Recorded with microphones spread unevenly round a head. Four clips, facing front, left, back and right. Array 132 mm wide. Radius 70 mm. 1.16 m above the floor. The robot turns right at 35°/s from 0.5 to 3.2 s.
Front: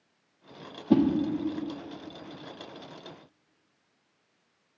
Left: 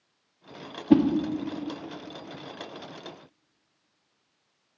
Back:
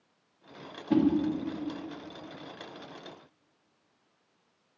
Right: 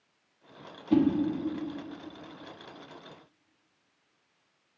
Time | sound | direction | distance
0.9 | a whoosh | 60° left | 0.7 m